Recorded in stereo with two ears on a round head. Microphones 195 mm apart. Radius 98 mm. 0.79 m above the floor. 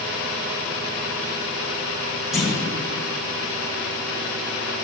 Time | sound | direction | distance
2.3 | a clunk | centre (ahead or behind) | 3 m